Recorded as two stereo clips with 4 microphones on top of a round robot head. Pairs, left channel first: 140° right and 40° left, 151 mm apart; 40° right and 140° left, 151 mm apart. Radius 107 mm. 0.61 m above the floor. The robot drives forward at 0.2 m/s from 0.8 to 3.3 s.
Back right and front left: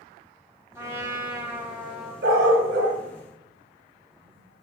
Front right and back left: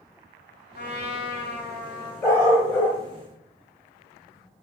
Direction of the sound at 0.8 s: 35° right.